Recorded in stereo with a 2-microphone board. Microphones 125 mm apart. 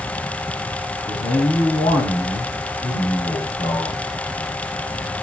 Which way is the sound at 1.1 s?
55° left (ahead or behind).